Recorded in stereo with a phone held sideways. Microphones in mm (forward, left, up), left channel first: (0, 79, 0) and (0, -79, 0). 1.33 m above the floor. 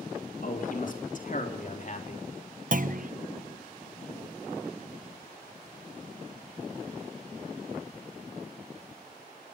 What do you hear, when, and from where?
0.4 s a man speaking: 60° left (ahead or behind), 4.5 m; by 2.3 s 50° left (ahead or behind), 3 m
2.7 s a clunk: 60° right (ahead or behind), 0.9 m